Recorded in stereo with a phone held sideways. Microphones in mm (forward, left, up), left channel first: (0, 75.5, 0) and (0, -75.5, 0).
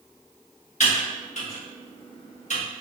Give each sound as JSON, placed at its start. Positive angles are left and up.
{"t": 0.8, "sound": "typing on a keyboard", "side_deg": 50, "distance_m": 1.0}